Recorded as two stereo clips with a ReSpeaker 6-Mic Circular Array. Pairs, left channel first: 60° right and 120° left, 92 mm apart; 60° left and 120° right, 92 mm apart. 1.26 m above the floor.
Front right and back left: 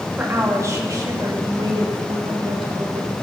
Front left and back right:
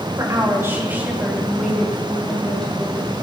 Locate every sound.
0.2 s a woman speaking: 170° right, 2.5 m; by 3.1 s 140° left, 5 m